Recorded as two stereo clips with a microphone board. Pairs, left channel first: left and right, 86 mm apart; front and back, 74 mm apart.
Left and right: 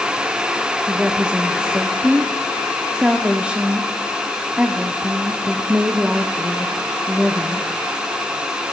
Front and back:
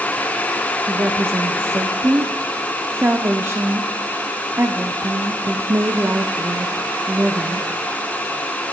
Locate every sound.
0.9 s a woman speaking: 155° right, 0.5 m